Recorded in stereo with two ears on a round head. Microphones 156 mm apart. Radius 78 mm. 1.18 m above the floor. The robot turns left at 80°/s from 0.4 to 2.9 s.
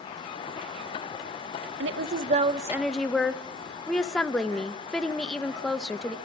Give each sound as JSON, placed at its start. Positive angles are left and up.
{"t": 1.8, "sound": "a woman speaking", "azimuth_deg": -95, "distance_m": 1.0}